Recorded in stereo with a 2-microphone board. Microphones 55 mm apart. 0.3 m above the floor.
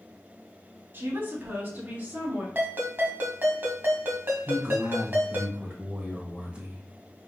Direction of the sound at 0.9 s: 40° right (ahead or behind).